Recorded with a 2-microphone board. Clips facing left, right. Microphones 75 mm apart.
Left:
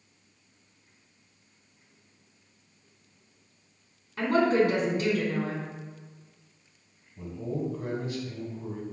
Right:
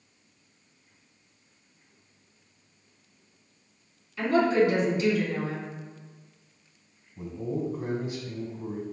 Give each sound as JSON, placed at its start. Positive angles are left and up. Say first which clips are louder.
{"t": 4.2, "sound": "a woman speaking", "louder": "right 1 dB", "side_deg": 45, "distance_m": 1.5}
{"t": 7.2, "sound": "a man speaking", "louder": "right 1 dB", "side_deg": -20, "distance_m": 1.1}